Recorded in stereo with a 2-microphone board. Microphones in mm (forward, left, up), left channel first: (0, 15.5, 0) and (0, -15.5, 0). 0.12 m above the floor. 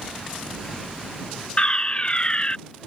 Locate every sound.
1.6 s a fire alarm: 30° left (ahead or behind)